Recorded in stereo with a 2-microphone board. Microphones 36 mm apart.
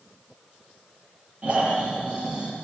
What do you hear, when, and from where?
1.4 s snoring: 35° right (ahead or behind), 8 m